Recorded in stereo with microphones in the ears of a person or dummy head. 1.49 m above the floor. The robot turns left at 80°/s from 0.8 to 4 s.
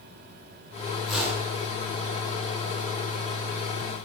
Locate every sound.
1.1 s a whoosh: straight ahead, 1.9 m; by 1.5 s 35° right, 1.9 m